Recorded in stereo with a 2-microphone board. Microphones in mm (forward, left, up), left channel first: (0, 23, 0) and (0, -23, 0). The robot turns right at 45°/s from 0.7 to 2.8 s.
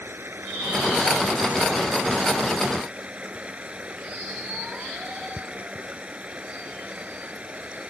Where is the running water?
120° right; by 7.9 s 25° right.